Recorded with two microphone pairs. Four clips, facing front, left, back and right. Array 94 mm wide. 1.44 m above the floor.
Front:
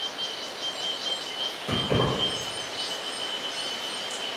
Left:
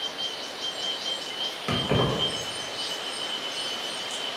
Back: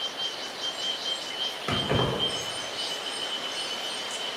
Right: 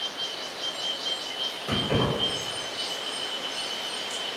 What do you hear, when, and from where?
1.7 s keys jangling: 145° left, 0.9 m